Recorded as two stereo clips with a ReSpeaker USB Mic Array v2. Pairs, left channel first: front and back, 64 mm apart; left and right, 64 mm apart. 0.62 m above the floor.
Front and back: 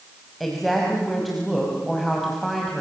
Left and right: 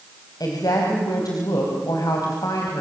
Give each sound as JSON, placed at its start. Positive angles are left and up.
{"t": 0.4, "sound": "a woman speaking", "azimuth_deg": 85, "distance_m": 4.5}